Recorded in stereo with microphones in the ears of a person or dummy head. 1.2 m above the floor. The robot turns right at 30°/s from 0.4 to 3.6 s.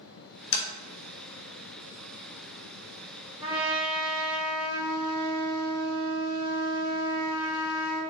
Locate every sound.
0.5 s tapping: 65° left (ahead or behind), 1.8 m; by 0.7 s 70° left (ahead or behind), 1.8 m
3.4 s a trumpet: 35° right (ahead or behind), 1.0 m; by 8.0 s 30° right (ahead or behind), 1.0 m